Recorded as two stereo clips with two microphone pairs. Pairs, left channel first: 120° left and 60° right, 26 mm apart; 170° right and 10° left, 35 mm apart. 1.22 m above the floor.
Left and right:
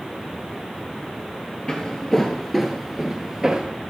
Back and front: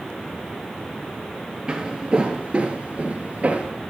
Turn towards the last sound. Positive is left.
turn(degrees=-5)